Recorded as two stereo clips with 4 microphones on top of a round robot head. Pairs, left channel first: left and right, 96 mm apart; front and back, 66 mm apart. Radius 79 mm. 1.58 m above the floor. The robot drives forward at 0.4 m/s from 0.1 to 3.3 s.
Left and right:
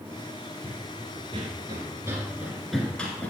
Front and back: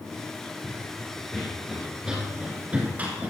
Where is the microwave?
No microwave in this recording.